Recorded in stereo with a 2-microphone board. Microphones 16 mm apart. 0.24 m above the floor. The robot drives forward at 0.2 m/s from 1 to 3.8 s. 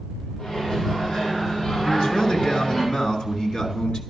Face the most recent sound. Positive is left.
turn(degrees=50)  # may be behind; listen again after turning